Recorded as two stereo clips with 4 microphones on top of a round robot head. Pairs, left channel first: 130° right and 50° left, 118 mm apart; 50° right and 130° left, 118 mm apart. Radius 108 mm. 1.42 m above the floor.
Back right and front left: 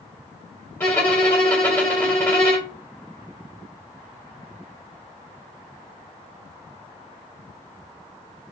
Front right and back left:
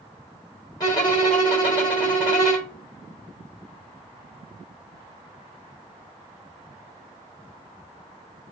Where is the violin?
75° right, 1.1 m.